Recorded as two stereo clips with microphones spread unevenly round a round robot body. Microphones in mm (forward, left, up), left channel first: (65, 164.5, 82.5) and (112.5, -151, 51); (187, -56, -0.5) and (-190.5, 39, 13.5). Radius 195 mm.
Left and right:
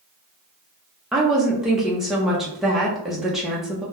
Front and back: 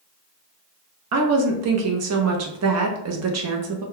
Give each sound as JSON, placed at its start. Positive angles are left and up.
{"t": 1.1, "sound": "a woman speaking", "azimuth_deg": -165, "distance_m": 0.6}